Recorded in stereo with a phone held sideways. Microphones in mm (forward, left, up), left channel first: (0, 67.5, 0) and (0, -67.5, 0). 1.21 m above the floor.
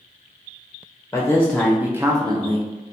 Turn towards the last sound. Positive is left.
turn(degrees=-45)  # may be behind; listen again after turning